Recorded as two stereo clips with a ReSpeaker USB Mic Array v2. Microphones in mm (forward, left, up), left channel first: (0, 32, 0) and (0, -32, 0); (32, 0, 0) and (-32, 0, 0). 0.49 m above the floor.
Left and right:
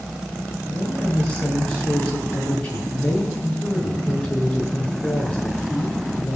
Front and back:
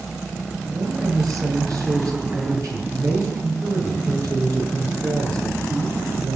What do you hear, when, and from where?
0.7 s a woman speaking: 160° left, 6.5 m